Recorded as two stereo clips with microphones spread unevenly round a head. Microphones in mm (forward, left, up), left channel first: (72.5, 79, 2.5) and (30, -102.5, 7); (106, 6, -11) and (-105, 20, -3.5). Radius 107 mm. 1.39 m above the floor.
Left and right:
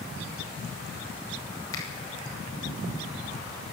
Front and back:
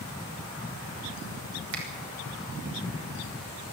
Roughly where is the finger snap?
Behind left.